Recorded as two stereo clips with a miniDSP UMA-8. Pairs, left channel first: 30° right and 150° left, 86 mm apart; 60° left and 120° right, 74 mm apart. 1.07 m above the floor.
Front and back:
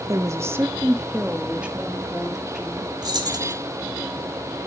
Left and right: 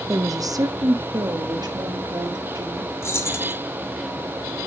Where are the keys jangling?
110° left, 1.5 m.